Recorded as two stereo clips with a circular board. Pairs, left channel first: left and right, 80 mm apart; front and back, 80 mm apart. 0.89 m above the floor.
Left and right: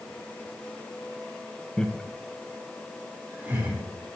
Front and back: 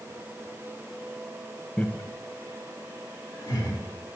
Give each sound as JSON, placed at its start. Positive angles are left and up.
{"t": 1.8, "sound": "laughter", "azimuth_deg": 40, "distance_m": 0.6}